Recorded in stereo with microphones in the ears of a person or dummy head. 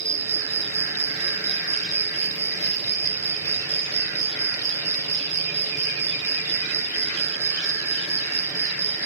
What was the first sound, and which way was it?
An insect, 15° right (ahead or behind).